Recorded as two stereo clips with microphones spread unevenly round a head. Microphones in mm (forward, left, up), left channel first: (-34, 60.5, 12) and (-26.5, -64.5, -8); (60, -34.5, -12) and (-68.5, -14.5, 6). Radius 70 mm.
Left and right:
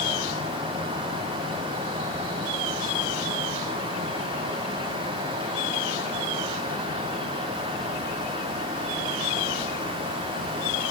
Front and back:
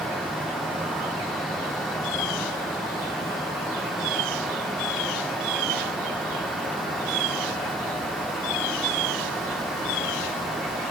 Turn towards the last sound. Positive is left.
No sound to turn to.